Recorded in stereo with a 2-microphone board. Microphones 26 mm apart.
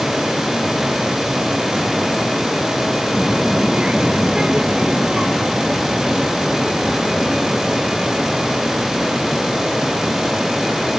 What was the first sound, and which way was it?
A child speaking, 35° right (ahead or behind).